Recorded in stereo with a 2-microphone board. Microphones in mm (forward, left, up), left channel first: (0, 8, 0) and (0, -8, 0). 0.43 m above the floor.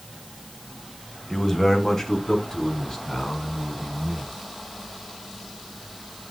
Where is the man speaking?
15° left (ahead or behind), 1.8 m; by 4.3 s 40° left (ahead or behind), 5.5 m.